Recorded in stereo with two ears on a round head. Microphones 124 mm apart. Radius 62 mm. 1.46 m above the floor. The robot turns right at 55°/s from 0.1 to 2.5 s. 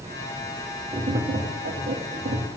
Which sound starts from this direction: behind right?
Tapping, at 0.9 s.